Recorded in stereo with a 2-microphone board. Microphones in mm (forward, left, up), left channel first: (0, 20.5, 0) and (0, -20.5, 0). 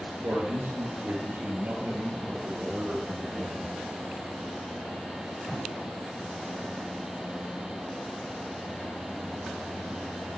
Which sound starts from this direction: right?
A man speaking, at 0.2 s.